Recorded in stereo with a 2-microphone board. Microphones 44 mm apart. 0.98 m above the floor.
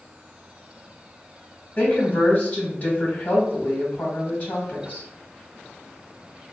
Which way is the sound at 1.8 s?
35° left (ahead or behind).